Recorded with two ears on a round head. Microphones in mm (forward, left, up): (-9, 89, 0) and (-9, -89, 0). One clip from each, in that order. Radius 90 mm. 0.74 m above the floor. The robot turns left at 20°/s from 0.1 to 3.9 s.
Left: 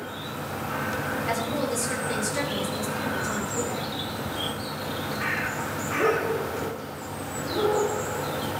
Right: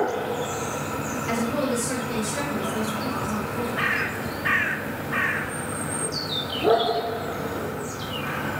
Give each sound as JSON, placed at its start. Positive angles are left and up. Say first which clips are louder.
{"t": 1.3, "sound": "a woman speaking", "louder": "right 4 dB", "azimuth_deg": 160, "distance_m": 4.5}